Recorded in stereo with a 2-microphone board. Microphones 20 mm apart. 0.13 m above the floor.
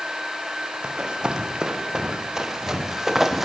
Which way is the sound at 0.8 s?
45° right (ahead or behind).